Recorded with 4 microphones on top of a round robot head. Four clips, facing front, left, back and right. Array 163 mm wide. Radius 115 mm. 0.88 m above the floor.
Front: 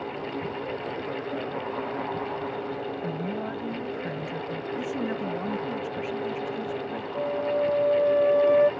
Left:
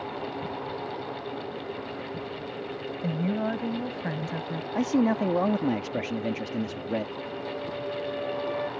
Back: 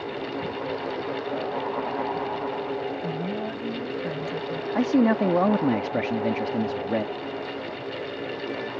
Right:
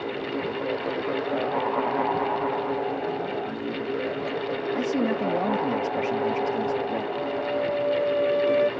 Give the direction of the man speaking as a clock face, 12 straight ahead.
6 o'clock.